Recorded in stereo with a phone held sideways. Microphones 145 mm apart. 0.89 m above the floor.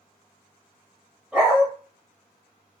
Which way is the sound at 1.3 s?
10° right (ahead or behind).